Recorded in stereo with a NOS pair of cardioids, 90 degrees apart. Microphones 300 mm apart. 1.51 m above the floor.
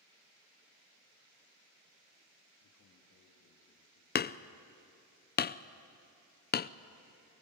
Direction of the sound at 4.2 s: 35° left.